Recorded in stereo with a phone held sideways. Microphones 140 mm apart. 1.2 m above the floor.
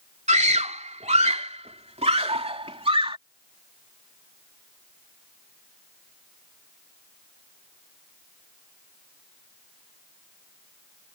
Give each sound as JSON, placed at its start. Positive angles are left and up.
{"t": 0.3, "sound": "a scream", "side_deg": -60}